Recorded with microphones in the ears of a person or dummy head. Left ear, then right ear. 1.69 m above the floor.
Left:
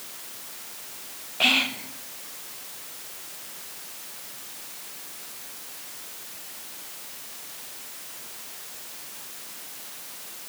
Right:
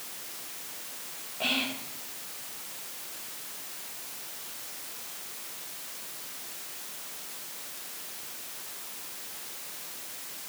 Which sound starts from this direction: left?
Whispering, at 1.4 s.